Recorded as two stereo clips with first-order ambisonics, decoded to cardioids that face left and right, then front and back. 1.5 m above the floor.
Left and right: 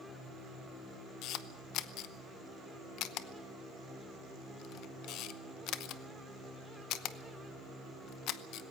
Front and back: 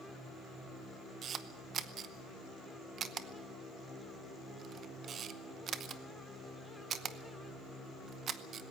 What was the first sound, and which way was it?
A camera shutter, 120° left.